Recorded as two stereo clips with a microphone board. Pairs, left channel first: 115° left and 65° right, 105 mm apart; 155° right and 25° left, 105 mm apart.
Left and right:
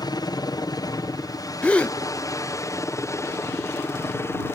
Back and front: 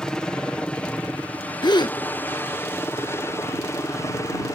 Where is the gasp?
175° right.